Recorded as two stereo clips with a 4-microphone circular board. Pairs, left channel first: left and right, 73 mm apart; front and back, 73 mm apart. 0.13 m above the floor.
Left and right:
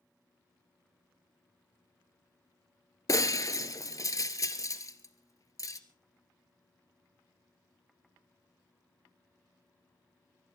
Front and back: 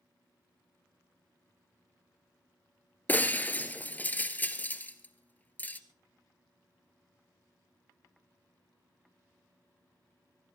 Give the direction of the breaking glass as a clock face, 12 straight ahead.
10 o'clock.